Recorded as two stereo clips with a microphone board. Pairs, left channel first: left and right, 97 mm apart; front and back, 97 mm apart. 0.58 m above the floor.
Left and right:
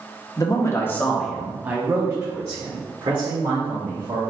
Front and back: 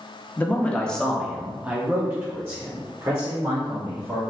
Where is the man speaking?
65° left, 0.9 m; by 4.2 s 125° right, 2.0 m.